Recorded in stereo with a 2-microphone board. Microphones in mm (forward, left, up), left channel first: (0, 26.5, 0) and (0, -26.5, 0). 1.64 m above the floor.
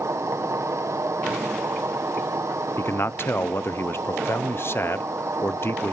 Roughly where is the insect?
Right.